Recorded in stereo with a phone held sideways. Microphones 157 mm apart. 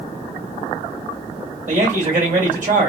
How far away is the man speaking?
About 2 m.